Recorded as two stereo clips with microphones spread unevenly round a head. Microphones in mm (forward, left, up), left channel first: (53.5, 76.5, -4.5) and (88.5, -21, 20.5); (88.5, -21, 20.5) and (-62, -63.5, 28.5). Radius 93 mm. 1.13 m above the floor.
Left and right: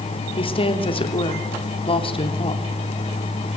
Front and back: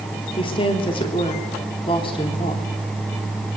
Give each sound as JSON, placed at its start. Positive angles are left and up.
{"t": 0.4, "sound": "a woman speaking", "azimuth_deg": 80, "distance_m": 3.0}